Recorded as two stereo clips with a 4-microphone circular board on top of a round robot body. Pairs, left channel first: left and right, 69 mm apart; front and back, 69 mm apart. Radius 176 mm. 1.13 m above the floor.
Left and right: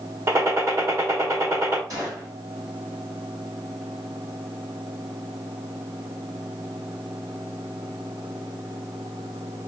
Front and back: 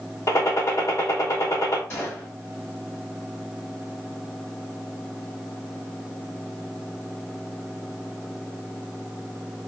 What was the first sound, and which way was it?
A gunshot, 45° right.